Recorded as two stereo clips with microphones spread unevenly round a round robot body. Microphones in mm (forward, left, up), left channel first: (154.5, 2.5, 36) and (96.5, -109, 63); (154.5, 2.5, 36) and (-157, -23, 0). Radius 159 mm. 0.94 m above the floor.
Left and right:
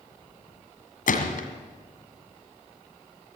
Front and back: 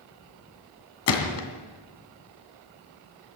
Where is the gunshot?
50° left, 2.5 m.